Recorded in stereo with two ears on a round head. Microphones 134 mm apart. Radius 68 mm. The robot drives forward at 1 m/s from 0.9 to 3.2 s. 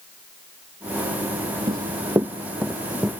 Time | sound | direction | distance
1.7 | running footsteps | 30° right (ahead or behind) | ?